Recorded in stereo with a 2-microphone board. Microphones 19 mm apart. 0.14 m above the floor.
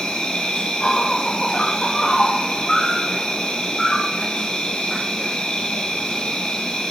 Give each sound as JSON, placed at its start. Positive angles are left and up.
{"t": 0.0, "sound": "an insect", "side_deg": 65, "distance_m": 3.0}